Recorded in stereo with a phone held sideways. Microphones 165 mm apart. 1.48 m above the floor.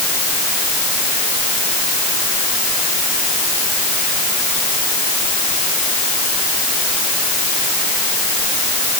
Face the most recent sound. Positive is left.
No sound to turn to.